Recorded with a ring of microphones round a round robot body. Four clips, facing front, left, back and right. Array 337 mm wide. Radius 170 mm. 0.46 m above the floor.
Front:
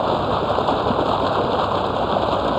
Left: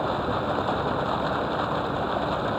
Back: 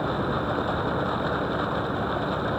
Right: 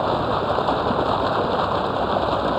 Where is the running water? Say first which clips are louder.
Right 5 dB, front 7 dB; 30° right.